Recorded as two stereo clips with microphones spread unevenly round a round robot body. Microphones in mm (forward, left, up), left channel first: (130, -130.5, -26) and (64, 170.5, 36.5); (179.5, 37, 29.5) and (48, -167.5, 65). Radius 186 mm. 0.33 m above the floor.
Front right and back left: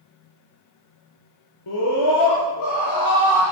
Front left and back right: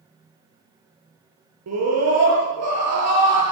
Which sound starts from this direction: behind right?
A scream, at 1.7 s.